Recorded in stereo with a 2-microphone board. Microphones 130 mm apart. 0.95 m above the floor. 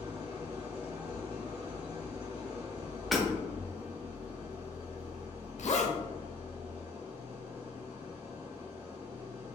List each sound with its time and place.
0.0 s an engine running: 45° right (ahead or behind), 1.6 m
3.1 s hammering: centre (ahead or behind), 1.3 m
5.6 s a zipper: 60° left (ahead or behind), 0.6 m